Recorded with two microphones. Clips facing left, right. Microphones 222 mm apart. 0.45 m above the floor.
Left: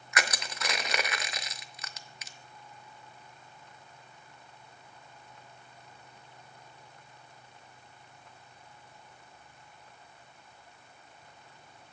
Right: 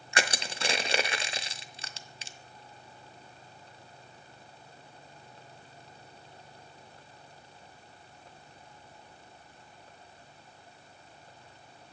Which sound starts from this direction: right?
Crushing, at 0.1 s.